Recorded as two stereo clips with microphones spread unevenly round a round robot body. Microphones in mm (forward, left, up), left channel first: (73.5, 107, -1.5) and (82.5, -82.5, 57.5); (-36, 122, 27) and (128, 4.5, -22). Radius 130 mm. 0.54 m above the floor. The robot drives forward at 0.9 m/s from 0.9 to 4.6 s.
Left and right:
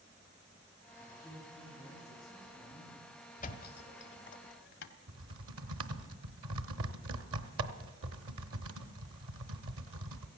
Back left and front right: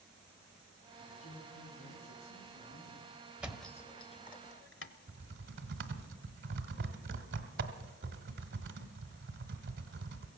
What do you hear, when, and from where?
1.1 s a man speaking: 165° right, 4 m; by 4.4 s 170° right, 7 m
3.4 s a thud: 45° left, 1.2 m; by 4.9 s 110° left, 0.9 m
5.1 s typing on a keyboard: 80° right, 0.9 m